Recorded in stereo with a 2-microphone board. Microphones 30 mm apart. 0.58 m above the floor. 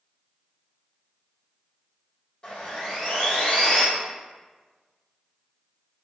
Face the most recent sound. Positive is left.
turn(degrees=35)  # may be behind; listen again after turning